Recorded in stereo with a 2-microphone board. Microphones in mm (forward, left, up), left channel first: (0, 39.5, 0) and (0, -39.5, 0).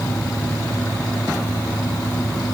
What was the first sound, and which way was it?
Only background noise.